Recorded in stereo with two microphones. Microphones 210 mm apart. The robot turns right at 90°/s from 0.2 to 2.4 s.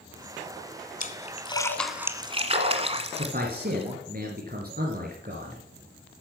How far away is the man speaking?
About 2.5 m.